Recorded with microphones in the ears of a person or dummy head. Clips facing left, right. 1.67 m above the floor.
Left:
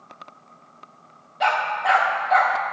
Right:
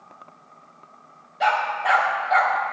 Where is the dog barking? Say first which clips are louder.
Even; centre (ahead or behind), 1.7 m.